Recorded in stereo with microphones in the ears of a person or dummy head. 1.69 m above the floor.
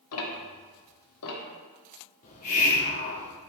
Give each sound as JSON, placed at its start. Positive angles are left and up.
{"t": 0.1, "sound": "ticking", "side_deg": 80, "distance_m": 1.4}
{"t": 2.2, "sound": "a hiss", "side_deg": 40, "distance_m": 1.9}